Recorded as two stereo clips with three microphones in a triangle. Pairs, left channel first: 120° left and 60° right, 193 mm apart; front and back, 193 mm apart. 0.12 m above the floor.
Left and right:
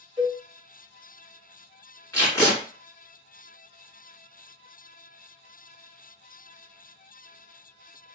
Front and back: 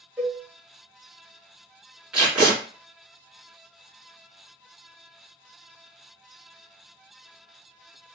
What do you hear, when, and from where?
0.2 s a cowbell: 105° right, 1.3 m
2.1 s tape being pulled: 105° left, 1.7 m